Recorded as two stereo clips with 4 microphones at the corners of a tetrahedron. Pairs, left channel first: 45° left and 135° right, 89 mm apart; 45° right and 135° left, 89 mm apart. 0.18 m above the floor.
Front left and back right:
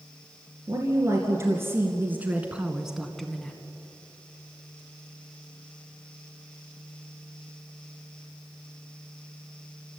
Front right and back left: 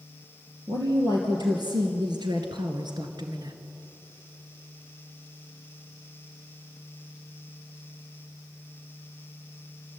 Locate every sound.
0.7 s a woman speaking: 175° left, 3 m; by 3.6 s 120° left, 1.6 m